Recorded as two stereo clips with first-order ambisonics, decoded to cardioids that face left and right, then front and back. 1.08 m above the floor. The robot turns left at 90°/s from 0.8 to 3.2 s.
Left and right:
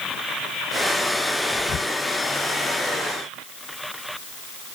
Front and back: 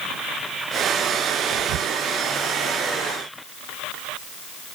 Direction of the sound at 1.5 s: 170° left.